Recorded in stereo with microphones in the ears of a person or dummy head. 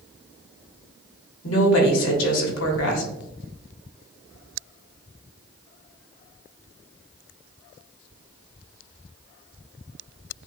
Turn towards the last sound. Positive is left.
turn(degrees=80)